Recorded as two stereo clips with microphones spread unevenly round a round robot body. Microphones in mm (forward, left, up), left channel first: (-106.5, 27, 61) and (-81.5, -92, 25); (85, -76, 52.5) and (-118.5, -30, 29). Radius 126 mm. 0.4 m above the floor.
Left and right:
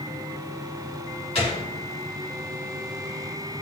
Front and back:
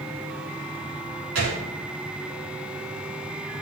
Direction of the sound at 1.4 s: 145° left.